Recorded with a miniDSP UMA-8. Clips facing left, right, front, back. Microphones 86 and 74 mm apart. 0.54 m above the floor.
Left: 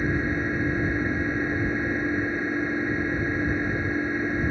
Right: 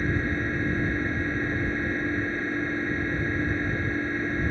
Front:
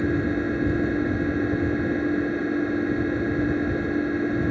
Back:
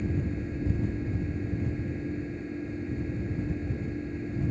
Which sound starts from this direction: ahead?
An engine running, at 0.0 s.